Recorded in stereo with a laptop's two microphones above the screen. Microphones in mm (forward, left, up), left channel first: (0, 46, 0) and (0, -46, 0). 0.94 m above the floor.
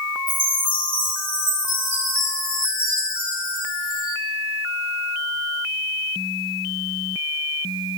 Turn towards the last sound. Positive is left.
turn(degrees=-70)  # may be behind; listen again after turning